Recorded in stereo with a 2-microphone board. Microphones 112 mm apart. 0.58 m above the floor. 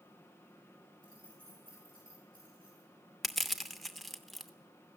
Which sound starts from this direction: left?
Keys jangling, at 1.0 s.